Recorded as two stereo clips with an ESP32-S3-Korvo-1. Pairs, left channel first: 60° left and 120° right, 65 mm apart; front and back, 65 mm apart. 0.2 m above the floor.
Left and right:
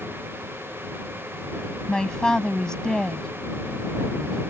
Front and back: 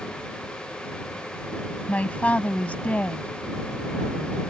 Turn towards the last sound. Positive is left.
turn(degrees=0)